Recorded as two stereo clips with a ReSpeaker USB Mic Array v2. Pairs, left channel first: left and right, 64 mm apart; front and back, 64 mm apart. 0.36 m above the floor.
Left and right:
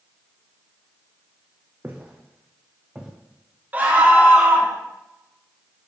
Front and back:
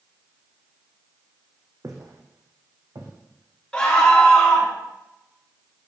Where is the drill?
I don't hear a drill.